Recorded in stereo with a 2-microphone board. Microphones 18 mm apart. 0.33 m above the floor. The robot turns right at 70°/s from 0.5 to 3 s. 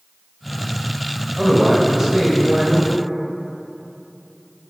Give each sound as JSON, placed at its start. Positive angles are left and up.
{"t": 1.4, "sound": "a man speaking", "side_deg": -15, "distance_m": 1.0}